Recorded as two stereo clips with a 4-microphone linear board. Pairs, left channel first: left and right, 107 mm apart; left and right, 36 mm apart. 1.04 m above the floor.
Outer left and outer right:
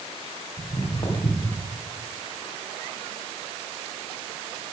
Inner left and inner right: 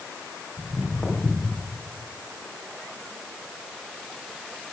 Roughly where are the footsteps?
Left.